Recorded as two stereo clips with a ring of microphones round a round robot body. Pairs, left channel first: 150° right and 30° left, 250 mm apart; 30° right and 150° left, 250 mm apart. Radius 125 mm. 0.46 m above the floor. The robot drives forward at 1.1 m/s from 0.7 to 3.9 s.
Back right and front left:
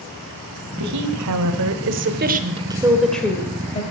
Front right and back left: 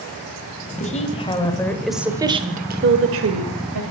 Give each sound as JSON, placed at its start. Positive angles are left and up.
{"t": 0.8, "sound": "a woman speaking", "azimuth_deg": 30, "distance_m": 2.5}